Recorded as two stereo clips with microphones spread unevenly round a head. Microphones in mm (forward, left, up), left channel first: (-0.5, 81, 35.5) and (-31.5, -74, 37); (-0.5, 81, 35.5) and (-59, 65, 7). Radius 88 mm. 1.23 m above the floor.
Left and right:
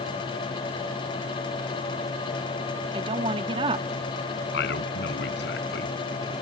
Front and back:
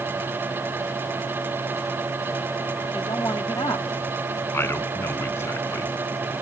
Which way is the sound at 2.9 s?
40° right.